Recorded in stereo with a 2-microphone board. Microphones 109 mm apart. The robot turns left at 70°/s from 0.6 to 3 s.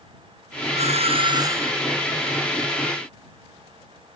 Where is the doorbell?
95° right; by 1.8 s 170° right.